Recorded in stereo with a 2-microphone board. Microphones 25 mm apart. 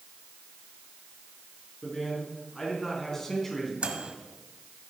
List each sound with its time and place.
1.8 s a man speaking: 25° left (ahead or behind), 4.5 m; by 3.7 s 15° left (ahead or behind), 2.5 m
3.8 s a microwave: 50° right (ahead or behind), 1.2 m